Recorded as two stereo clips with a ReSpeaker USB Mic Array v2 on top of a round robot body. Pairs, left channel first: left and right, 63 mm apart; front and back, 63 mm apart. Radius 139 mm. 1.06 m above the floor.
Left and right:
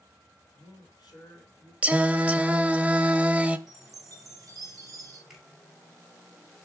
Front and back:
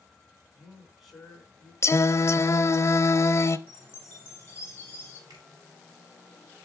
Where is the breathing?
No breathing in this recording.